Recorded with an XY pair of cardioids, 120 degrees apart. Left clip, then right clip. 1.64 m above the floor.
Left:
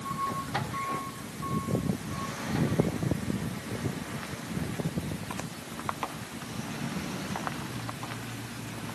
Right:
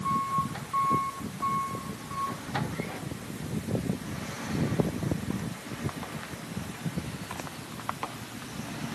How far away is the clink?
I don't hear a clink.